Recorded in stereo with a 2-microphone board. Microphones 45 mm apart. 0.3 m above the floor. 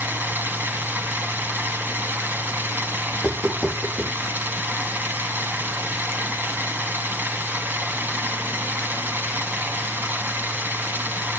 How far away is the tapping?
About 5.5 m.